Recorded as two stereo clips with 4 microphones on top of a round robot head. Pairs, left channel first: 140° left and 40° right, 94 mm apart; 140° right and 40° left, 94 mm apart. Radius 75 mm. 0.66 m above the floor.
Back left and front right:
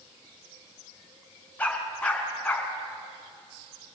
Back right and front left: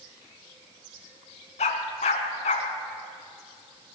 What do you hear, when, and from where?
1.6 s a dog barking: 140° right, 2.5 m